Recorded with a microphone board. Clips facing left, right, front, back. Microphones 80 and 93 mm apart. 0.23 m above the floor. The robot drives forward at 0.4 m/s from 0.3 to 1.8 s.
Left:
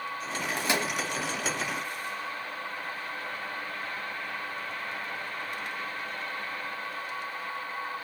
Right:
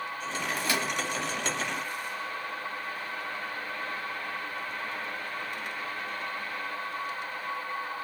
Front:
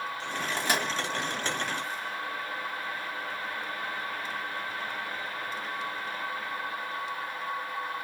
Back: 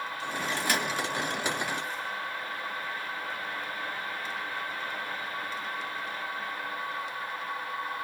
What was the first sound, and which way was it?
A microwave, 45° left.